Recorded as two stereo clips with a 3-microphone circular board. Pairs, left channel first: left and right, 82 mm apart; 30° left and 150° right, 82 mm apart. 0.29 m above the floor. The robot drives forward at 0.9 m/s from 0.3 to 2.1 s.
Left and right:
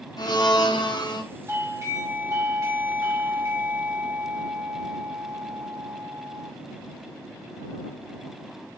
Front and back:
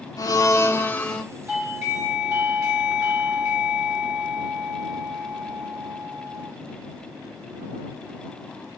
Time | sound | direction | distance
0.2 | a blender | 70° left | 1.2 m
1.5 | a doorbell | 95° right | 1.6 m